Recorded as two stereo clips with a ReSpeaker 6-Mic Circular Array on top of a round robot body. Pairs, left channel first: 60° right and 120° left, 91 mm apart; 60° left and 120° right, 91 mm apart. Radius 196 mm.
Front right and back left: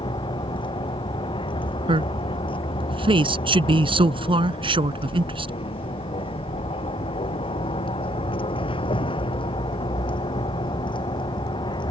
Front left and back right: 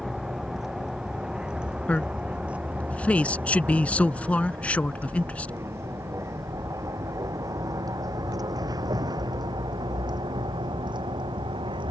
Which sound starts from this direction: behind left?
A man speaking, at 1.9 s.